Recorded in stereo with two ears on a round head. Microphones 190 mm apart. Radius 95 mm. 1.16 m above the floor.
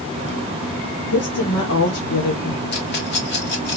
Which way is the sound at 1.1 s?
80° left.